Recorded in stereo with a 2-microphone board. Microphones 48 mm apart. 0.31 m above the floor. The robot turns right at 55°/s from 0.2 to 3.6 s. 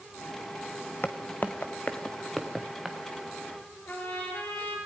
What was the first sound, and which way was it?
Footsteps, 35° left (ahead or behind).